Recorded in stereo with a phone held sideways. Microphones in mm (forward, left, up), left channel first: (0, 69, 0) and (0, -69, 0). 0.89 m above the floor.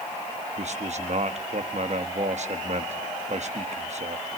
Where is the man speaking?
55° right (ahead or behind), 1.3 m.